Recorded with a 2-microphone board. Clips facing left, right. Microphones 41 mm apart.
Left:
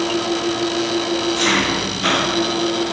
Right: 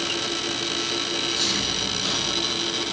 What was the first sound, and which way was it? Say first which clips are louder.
An engine running: left 7 dB; 55° left (ahead or behind).